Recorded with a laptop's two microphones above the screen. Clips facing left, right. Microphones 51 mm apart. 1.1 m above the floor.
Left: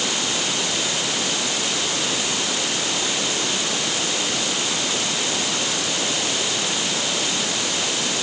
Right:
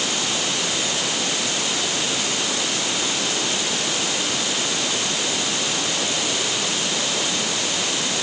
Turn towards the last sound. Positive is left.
No sound to turn to.